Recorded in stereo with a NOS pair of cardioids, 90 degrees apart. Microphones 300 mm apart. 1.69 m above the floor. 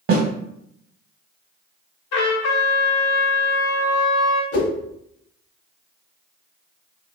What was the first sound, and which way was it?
A snare drum, 50° right.